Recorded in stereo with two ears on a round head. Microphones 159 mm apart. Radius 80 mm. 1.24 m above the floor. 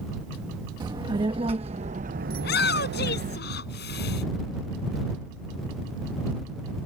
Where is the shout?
65° left (ahead or behind).